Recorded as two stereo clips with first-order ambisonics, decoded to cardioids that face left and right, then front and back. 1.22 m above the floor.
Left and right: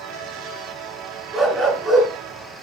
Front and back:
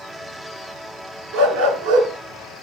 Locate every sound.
1.3 s a dog barking: straight behind, 6 m